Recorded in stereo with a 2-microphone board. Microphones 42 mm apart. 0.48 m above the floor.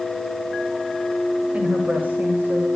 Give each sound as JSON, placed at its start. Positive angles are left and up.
{"t": 1.5, "sound": "a woman speaking", "side_deg": -25, "distance_m": 2.0}